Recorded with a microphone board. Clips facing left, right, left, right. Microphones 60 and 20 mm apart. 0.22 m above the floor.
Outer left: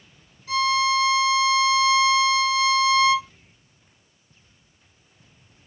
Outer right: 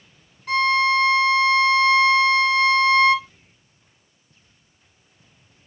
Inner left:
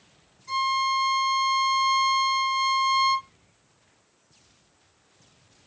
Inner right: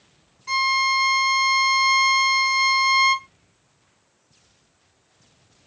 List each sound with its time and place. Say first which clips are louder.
0.5 s a violin: outer right 3 dB, inner right 4 dB; 65° right (ahead or behind), 0.5 m